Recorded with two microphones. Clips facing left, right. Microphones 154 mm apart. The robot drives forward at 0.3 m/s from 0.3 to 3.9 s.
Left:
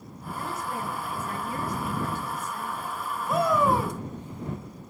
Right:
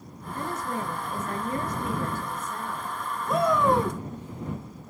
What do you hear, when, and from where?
0.3 s a woman speaking: 45° right (ahead or behind), 2 m
3.3 s a shout: 5° left (ahead or behind), 1.2 m